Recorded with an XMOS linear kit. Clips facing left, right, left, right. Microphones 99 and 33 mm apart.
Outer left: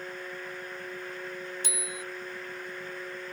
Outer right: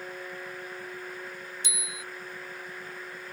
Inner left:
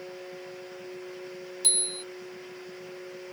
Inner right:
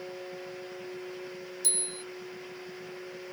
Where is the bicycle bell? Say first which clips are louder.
Outer left 4 dB, inner left 6 dB; 60° left (ahead or behind).